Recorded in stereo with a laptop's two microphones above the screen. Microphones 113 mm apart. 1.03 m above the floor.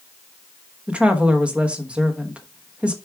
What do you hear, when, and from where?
0.9 s a woman speaking: 10° right (ahead or behind), 1.1 m